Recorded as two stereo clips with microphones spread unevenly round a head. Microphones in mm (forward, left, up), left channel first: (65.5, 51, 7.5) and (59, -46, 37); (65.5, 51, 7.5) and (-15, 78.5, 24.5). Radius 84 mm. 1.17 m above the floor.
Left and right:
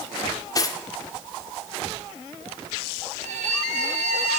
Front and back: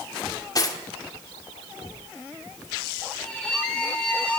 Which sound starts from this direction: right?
A violin, at 3.2 s.